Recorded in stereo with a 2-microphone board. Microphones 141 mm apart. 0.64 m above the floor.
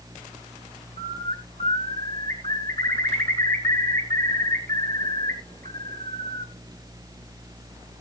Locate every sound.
1.0 s a bird: 80° right, 3.5 m